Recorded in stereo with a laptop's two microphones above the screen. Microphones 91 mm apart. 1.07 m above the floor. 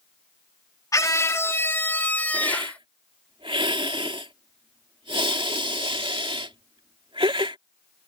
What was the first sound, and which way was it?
A scream, 40° left (ahead or behind).